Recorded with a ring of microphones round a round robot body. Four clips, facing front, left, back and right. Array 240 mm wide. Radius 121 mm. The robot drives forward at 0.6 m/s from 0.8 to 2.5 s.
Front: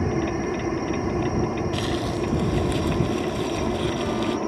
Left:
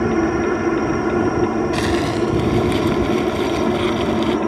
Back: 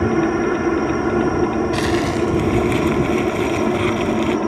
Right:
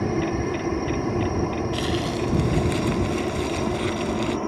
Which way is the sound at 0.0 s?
140° left.